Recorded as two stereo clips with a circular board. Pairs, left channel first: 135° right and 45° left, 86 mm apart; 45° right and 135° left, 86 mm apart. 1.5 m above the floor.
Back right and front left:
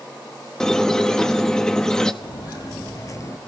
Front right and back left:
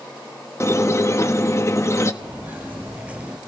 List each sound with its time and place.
0.6 s a squeak: 60° right, 1.0 m
2.2 s footsteps: 155° right, 3 m; by 3.4 s 160° right, 1.8 m